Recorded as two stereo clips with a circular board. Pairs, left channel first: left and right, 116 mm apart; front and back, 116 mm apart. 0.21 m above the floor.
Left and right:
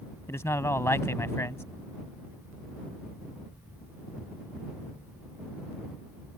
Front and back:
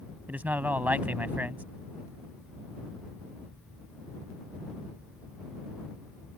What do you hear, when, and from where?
0.3 s a man speaking: 125° left